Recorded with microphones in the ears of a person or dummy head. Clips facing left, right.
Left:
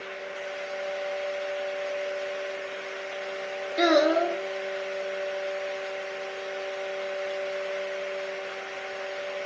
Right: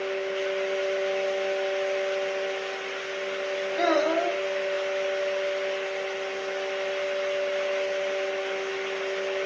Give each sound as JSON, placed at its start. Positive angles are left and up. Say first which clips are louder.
{"t": 3.8, "sound": "a child speaking", "louder": "left 3 dB", "side_deg": 40, "distance_m": 0.9}